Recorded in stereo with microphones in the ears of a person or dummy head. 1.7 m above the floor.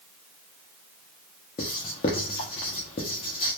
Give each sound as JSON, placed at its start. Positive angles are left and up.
{"t": 1.6, "sound": "writing", "side_deg": 30, "distance_m": 0.5}